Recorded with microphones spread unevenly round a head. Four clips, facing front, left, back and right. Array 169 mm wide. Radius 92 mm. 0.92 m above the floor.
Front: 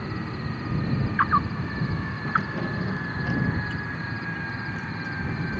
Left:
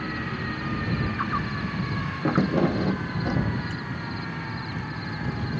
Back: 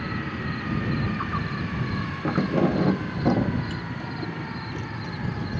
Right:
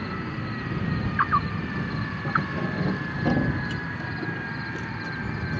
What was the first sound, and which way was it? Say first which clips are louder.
Keys jangling: left 7 dB, back 6 dB; 105° left.